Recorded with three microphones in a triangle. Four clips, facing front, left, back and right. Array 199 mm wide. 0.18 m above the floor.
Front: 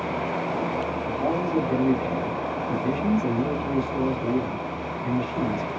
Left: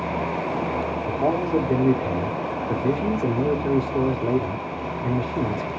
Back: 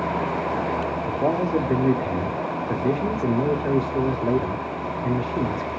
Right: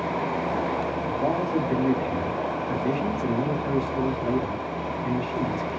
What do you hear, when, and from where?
1.1 s a man speaking: 120° left, 1.5 m